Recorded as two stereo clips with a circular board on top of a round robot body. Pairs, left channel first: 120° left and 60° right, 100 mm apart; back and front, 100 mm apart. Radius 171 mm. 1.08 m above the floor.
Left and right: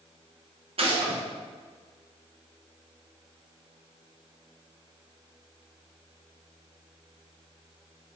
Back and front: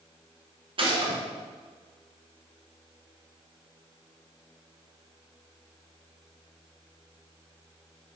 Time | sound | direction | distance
0.8 | a gunshot | 35° right | 1.6 m